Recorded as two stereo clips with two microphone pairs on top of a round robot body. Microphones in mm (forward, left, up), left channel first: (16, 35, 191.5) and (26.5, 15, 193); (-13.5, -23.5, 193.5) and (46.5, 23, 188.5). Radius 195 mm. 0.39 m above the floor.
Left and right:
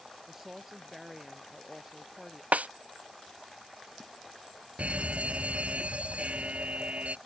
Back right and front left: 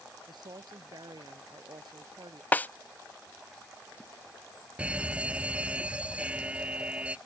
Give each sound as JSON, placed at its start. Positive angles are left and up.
{"t": 0.3, "sound": "a woman speaking", "azimuth_deg": 15}
{"t": 2.5, "sound": "a snare drum", "azimuth_deg": -75}
{"t": 4.8, "sound": "a fire alarm", "azimuth_deg": -35}